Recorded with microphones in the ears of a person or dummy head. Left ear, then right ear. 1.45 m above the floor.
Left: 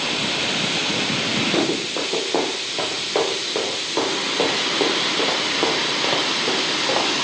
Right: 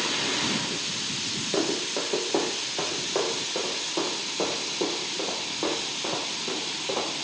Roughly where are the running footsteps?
Centre.